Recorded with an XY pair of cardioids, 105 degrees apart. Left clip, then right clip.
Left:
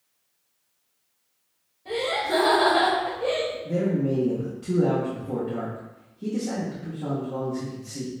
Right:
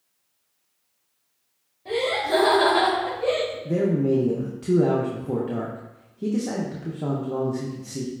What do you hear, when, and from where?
1.9 s laughter: 30° right, 1.8 m; by 3.5 s 5° right, 2 m
3.6 s a man speaking: 40° right, 0.7 m